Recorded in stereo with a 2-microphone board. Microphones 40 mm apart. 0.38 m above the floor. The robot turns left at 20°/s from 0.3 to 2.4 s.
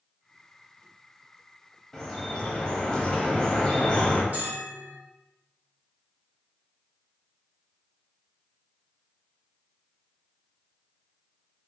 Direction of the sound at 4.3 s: 40° right (ahead or behind).